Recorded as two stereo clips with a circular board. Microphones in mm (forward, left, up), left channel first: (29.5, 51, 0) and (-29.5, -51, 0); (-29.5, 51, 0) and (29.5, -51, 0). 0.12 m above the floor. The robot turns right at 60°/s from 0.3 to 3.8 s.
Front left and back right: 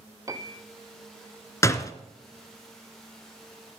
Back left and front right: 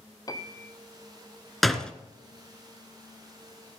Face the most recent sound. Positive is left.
turn(degrees=160)